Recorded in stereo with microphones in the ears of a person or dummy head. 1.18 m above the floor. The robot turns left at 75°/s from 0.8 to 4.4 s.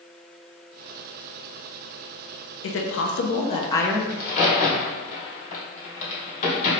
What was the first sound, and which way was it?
A woman speaking, 105° left.